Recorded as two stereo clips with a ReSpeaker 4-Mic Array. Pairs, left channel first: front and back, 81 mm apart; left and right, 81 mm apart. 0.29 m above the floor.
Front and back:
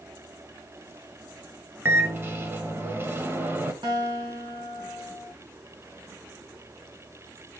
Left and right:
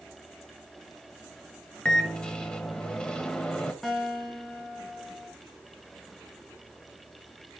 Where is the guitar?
Straight behind, 3 m.